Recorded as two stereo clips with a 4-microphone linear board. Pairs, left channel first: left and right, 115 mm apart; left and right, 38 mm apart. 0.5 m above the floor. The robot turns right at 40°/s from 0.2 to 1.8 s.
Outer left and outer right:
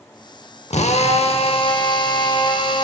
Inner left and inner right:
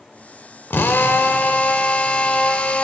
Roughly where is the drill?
Left.